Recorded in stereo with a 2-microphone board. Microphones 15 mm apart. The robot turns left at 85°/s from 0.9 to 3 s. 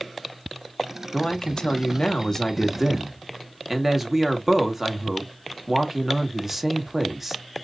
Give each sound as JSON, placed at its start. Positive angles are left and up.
{"t": 1.1, "sound": "a man speaking", "azimuth_deg": 150, "distance_m": 1.6}